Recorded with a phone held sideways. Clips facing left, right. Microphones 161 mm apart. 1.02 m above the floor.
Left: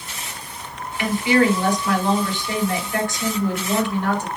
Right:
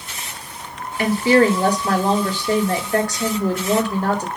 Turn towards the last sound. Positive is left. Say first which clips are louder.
# right 3 dB
turn(degrees=-35)  # may be behind; listen again after turning